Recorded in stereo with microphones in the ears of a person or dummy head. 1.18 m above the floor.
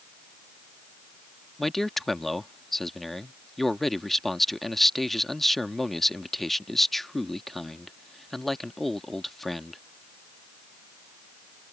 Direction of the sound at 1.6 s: 5° left (ahead or behind).